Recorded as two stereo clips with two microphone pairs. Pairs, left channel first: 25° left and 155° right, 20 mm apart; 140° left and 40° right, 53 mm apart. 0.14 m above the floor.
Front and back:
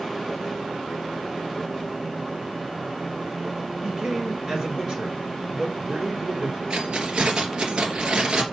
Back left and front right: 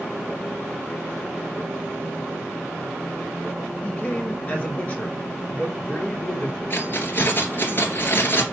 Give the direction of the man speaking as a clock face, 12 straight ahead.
5 o'clock.